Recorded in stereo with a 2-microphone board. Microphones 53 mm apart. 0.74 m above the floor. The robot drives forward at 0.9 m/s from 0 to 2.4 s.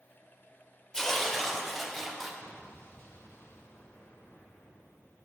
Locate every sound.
0.9 s tearing paper: 10° left (ahead or behind), 1.3 m; by 2.3 s 5° left (ahead or behind), 2.5 m
2.4 s an explosion: 50° left (ahead or behind), 2 m